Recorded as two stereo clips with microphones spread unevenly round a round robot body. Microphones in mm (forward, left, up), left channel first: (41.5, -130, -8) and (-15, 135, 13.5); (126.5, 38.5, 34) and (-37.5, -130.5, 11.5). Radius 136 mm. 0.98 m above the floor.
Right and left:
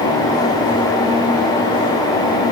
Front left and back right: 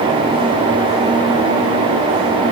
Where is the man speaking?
No man speaking in this recording.